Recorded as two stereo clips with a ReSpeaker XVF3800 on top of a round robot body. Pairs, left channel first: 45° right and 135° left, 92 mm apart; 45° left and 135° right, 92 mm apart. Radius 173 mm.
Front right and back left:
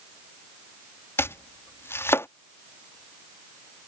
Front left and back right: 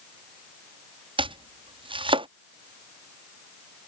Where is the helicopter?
No helicopter in this recording.